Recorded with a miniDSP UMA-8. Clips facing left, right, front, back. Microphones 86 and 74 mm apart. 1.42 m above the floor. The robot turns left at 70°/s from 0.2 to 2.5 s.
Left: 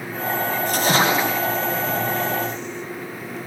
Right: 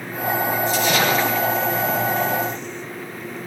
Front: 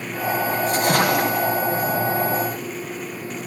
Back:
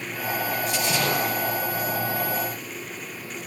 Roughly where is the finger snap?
No finger snap in this recording.